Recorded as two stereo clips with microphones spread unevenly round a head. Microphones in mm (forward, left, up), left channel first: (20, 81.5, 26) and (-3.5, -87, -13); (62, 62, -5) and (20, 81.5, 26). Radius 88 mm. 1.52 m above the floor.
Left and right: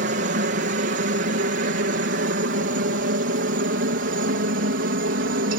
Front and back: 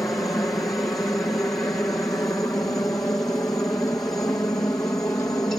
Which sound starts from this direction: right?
A helicopter, at 0.0 s.